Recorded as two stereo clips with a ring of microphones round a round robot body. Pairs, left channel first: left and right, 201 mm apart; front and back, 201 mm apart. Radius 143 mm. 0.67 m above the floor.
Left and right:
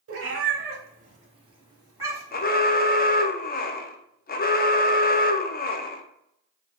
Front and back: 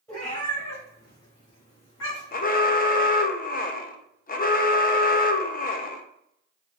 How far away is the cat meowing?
About 1.0 m.